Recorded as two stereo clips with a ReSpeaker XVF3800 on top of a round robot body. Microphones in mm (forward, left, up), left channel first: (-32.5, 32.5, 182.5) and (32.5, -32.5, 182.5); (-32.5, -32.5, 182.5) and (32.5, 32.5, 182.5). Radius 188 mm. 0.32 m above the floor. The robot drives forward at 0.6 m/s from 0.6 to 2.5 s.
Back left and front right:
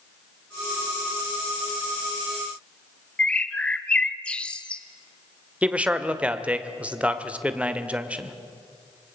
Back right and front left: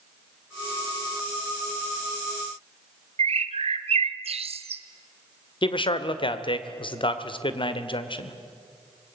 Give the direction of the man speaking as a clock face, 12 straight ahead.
4 o'clock.